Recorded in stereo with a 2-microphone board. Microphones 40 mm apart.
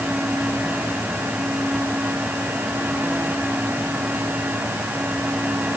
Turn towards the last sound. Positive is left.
No sound to turn to.